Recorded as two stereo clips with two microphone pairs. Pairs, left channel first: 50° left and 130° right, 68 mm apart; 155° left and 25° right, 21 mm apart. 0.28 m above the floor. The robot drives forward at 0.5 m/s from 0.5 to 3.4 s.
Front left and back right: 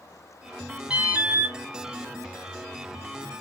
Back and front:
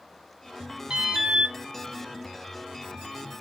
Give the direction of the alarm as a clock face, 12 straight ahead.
2 o'clock.